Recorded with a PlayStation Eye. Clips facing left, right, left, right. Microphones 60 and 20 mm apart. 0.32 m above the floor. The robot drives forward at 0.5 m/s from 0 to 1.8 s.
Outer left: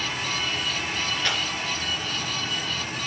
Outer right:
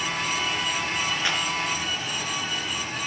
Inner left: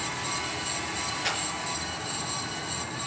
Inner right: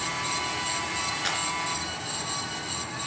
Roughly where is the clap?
Centre.